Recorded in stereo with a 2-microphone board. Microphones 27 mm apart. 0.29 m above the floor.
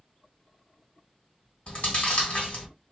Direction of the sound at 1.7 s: 50° left (ahead or behind).